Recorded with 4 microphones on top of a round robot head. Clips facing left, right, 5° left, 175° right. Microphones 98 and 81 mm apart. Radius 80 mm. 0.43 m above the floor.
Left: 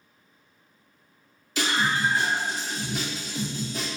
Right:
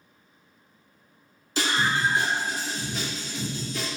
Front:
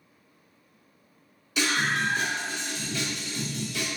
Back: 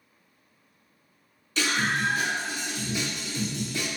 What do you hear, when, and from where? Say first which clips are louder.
1.6 s a scream: even, even; 70° right, 1.3 m; by 3.9 s 150° left, 1.4 m